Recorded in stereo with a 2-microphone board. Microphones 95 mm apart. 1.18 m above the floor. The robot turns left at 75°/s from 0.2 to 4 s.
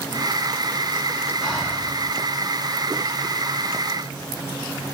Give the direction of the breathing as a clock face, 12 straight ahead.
6 o'clock.